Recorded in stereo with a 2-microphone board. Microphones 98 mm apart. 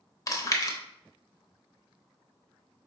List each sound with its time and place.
0.3 s chewing: 35° left (ahead or behind), 0.7 m